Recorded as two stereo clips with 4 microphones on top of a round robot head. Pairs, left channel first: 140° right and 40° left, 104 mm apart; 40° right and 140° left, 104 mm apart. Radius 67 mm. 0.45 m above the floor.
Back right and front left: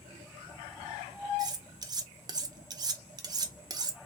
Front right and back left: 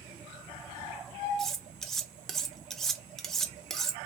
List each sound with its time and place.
1.4 s cutlery clinking: 45° left, 0.5 m